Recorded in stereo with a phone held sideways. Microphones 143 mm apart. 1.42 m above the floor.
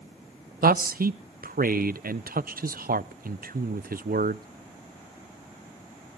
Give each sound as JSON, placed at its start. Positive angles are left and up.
{"t": 0.6, "sound": "a man speaking", "side_deg": -90, "distance_m": 0.5}